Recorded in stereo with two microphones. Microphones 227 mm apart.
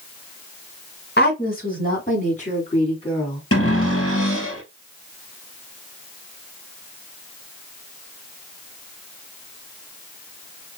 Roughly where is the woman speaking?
Left.